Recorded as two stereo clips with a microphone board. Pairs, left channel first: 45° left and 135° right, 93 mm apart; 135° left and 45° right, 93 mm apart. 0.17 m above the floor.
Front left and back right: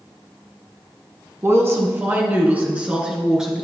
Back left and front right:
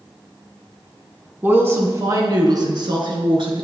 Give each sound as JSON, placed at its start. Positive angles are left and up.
{"t": 1.4, "sound": "a woman speaking", "azimuth_deg": -100, "distance_m": 1.1}